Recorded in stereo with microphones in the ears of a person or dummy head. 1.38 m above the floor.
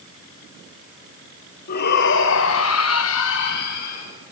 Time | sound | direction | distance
1.7 | a shout | 55° left (ahead or behind) | 2.5 m